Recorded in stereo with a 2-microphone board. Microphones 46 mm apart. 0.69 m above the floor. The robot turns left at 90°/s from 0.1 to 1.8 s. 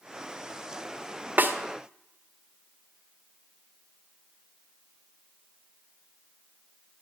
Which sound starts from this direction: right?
A snare drum, at 1.4 s.